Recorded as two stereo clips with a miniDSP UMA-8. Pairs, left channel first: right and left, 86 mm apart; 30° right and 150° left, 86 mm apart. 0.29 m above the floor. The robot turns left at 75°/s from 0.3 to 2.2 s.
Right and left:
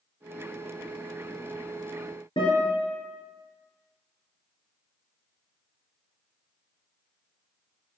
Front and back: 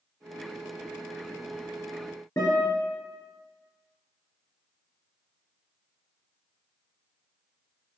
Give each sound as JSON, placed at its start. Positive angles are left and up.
{"t": 2.4, "sound": "a guitar", "azimuth_deg": -80, "distance_m": 2.5}